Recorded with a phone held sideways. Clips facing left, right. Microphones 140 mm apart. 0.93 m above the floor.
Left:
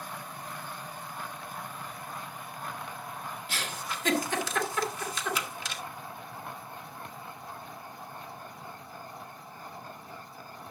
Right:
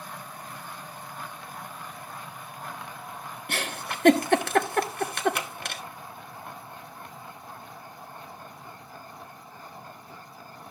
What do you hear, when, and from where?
3.5 s a giggle: 60° right (ahead or behind), 1.0 m